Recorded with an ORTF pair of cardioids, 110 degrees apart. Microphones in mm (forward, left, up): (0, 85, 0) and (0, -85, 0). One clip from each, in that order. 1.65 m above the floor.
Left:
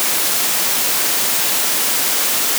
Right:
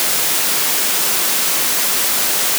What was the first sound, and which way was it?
Only background noise.